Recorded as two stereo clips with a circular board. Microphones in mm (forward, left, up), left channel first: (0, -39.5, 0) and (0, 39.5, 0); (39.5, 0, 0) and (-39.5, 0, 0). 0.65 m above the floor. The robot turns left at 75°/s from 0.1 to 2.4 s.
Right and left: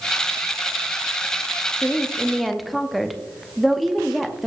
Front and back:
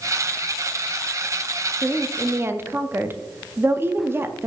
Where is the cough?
No cough in this recording.